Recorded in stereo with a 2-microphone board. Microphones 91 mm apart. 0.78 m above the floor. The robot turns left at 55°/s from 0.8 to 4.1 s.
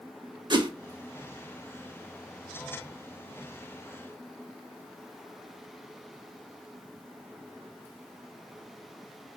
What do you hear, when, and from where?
0.5 s a whoosh: 55° right (ahead or behind), 0.6 m